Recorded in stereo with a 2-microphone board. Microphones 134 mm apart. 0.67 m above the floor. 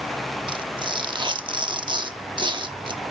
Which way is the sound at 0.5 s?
40° right (ahead or behind).